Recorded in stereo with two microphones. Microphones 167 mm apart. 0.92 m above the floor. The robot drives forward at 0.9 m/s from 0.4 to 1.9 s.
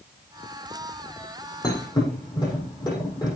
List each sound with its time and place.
1.6 s a thud: 25° left (ahead or behind), 8 m